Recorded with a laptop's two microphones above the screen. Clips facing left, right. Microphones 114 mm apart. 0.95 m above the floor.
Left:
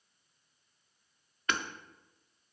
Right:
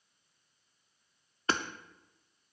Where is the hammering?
35° right (ahead or behind), 0.7 m.